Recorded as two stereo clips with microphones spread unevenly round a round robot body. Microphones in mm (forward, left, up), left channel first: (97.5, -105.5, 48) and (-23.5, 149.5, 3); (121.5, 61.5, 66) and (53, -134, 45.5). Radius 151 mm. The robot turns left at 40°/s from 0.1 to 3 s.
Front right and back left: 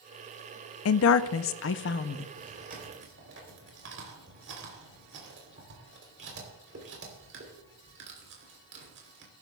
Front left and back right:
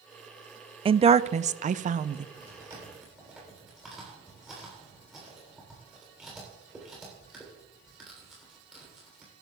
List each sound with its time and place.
0.8 s a woman speaking: 65° right, 0.5 m; by 2.3 s 120° right, 0.5 m
2.4 s chewing: 170° right, 3 m; by 9.3 s 165° left, 3 m